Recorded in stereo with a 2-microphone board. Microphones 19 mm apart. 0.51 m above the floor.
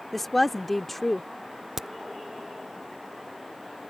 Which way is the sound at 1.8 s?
20° right (ahead or behind).